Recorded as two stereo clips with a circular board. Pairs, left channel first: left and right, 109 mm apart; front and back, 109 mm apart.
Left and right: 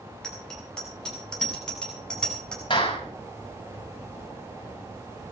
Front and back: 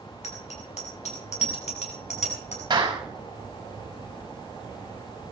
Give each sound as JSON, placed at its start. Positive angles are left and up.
{"t": 0.2, "sound": "a bicycle bell", "azimuth_deg": 5, "distance_m": 6.5}
{"t": 2.7, "sound": "a clap", "azimuth_deg": 130, "distance_m": 5.5}